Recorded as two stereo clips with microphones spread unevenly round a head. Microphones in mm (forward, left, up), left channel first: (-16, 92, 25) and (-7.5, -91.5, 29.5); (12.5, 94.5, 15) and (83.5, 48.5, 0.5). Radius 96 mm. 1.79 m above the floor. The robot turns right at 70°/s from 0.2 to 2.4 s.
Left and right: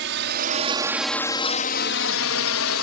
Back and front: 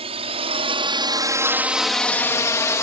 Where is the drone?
55° right; by 2.8 s 90° left.